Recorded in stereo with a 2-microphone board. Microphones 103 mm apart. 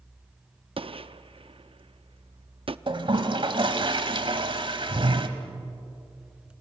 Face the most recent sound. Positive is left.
turn(degrees=-60)  # may be behind; listen again after turning